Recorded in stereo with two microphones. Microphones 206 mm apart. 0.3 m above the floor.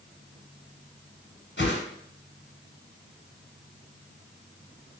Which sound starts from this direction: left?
A whoosh, at 1.6 s.